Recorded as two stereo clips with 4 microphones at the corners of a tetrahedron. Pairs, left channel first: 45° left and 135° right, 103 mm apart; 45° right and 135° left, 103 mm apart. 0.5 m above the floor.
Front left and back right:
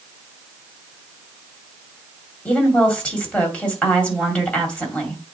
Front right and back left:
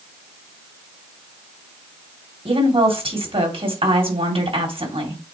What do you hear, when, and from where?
2.5 s a woman speaking: 120° left, 2.5 m